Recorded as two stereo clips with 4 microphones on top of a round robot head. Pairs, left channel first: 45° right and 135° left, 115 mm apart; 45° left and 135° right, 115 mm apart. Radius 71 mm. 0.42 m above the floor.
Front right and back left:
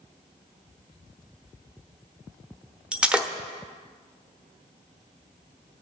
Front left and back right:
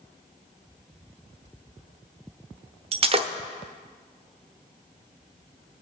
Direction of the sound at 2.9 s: 145° right.